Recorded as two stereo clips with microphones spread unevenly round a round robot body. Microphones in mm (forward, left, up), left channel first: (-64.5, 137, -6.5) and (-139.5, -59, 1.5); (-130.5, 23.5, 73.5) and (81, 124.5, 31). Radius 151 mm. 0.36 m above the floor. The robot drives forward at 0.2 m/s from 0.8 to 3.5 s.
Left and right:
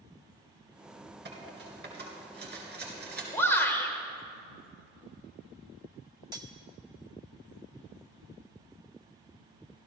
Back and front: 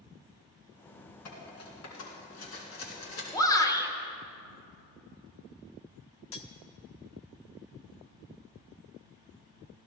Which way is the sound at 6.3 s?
175° left.